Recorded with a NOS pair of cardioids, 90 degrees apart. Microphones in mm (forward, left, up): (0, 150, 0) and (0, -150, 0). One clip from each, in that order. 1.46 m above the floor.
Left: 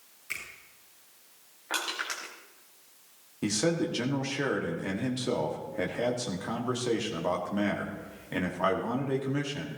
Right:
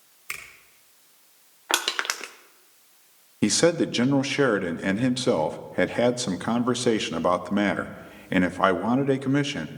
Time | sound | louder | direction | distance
0.3 | a finger snap | right 2 dB | 70° right | 4.5 m
1.7 | crushing | right 7 dB | 70° right | 1.0 m
3.4 | a man speaking | right 8 dB | 55° right | 1.1 m